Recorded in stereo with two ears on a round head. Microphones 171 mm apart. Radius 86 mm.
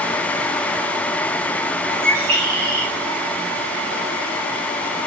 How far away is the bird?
About 3.5 m.